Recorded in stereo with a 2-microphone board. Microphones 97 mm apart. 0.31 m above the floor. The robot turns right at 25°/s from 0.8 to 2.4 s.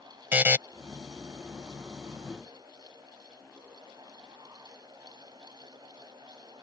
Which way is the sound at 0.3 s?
20° right (ahead or behind).